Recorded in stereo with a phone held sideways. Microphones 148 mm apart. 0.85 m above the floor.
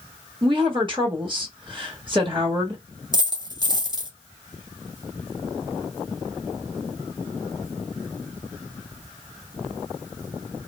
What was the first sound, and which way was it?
A woman speaking, 35° right (ahead or behind).